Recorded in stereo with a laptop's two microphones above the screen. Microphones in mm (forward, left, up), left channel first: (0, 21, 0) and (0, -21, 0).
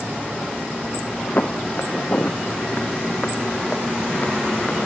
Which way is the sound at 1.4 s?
50° left (ahead or behind).